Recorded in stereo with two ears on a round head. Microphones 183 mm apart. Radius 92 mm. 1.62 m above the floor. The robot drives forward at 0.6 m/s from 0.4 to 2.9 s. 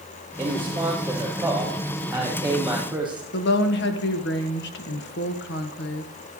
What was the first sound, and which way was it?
A man speaking, 10° right (ahead or behind).